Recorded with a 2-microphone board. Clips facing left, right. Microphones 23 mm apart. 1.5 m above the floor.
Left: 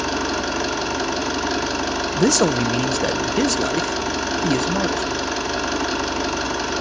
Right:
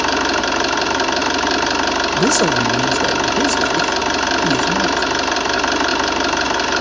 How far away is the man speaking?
About 0.6 m.